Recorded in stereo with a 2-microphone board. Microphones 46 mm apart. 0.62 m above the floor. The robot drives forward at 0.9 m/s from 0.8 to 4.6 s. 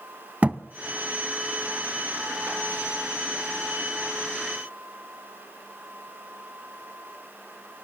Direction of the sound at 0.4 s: 30° right (ahead or behind).